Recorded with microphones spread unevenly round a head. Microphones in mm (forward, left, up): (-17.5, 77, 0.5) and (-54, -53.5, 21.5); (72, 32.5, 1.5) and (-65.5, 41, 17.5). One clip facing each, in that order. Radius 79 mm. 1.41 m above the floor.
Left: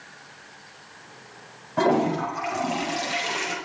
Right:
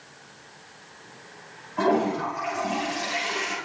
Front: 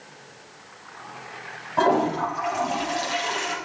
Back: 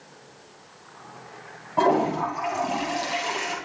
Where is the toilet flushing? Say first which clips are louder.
Left 1 dB, even; 95° left, 8 m.